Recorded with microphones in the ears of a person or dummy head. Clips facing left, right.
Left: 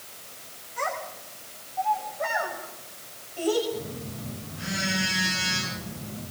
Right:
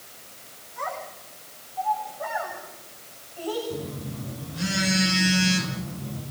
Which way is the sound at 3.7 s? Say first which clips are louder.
Right 1 dB; 80° right.